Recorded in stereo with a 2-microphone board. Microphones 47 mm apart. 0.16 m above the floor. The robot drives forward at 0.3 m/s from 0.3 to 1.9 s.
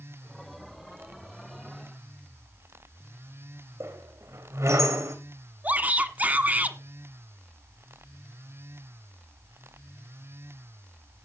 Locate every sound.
3.8 s a squeak: 85° right, 3 m
5.6 s a shout: 35° right (ahead or behind), 1.5 m